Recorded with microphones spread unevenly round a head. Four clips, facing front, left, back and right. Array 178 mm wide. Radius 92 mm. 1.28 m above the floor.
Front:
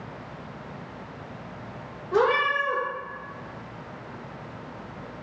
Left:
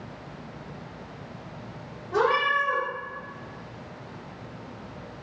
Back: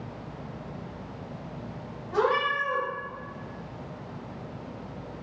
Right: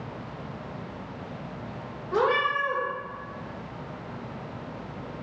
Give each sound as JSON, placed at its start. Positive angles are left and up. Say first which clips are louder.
{"t": 2.1, "sound": "a cat meowing", "louder": "left 1 dB, front 3 dB", "azimuth_deg": -35, "distance_m": 1.5}